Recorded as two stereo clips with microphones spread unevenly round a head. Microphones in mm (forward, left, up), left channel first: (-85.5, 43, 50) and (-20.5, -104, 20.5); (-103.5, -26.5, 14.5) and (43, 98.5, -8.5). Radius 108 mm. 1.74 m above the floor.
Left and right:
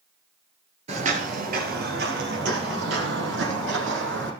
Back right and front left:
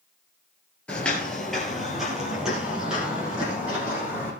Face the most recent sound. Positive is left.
turn(degrees=-45)